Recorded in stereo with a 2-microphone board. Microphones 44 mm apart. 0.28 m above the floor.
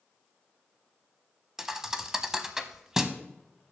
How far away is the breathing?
No breathing in this recording.